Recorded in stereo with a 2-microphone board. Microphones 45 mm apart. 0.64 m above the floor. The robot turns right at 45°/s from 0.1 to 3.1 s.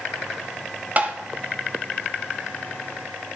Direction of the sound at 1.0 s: 35° right (ahead or behind).